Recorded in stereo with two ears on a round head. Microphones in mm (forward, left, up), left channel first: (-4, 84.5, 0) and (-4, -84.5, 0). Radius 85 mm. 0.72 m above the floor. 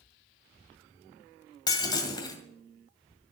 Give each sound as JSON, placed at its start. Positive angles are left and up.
{"t": 1.7, "sound": "breaking glass", "side_deg": 20, "distance_m": 1.9}